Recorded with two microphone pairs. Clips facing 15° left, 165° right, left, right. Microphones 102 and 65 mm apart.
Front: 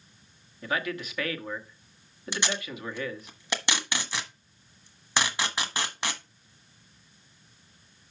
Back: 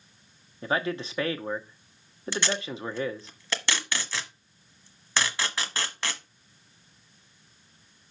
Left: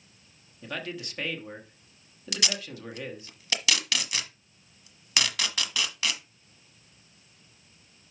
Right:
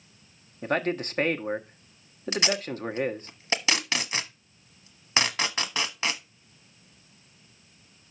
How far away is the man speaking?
About 0.9 m.